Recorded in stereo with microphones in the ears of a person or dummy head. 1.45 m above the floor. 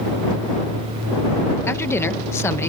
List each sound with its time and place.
1.7 s a woman speaking: 15° left (ahead or behind)